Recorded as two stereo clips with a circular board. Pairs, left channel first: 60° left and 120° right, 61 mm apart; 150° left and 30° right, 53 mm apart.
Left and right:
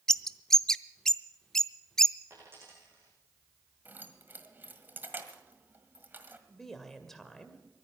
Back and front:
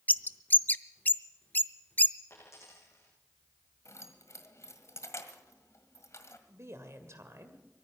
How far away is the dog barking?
No dog barking in this recording.